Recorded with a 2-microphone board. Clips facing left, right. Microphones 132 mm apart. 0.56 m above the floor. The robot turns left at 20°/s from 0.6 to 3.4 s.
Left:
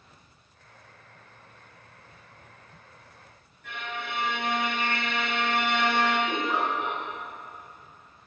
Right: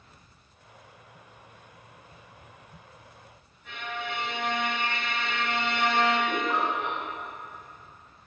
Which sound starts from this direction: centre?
A giggle, at 6.3 s.